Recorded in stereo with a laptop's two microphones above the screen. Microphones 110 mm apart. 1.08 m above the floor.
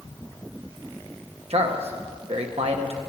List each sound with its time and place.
1.5 s a man speaking: 70° right (ahead or behind), 1.1 m